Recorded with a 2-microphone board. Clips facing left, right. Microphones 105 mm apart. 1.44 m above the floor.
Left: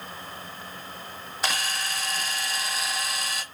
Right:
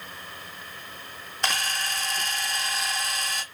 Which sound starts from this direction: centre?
A camera shutter, at 1.4 s.